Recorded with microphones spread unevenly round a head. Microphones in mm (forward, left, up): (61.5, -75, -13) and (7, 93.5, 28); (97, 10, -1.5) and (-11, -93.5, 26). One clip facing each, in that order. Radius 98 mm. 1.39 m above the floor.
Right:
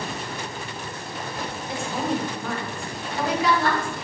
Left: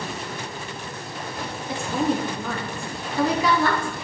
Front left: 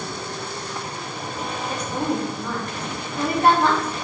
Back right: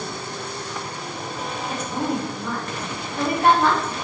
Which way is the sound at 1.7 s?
135° left.